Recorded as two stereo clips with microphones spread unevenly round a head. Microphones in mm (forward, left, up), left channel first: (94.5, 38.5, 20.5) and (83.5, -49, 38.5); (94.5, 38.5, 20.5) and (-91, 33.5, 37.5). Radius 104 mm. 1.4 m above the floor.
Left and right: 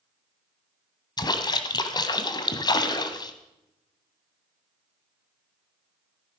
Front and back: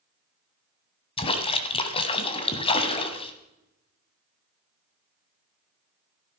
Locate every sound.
1.2 s a splash: 55° left, 1.6 m